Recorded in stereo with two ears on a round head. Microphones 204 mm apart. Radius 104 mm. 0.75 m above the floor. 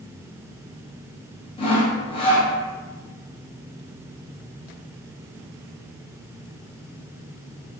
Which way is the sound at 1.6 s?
25° left (ahead or behind).